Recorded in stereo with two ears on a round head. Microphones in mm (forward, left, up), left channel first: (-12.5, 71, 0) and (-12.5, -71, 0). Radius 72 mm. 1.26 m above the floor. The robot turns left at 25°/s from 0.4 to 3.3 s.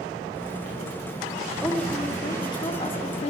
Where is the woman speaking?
175° left, 0.6 m; by 3.3 s 135° left, 0.6 m.